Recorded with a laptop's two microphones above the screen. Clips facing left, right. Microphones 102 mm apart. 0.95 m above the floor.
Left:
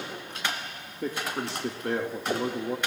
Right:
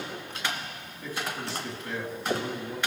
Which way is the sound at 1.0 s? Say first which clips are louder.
Left 3 dB; 60° left (ahead or behind).